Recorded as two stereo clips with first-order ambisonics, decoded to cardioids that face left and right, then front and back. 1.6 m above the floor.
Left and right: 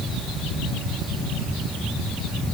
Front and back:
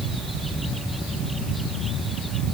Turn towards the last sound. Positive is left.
No sound to turn to.